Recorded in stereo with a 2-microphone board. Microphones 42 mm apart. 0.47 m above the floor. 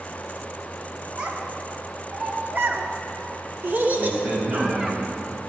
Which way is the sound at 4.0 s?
30° right (ahead or behind).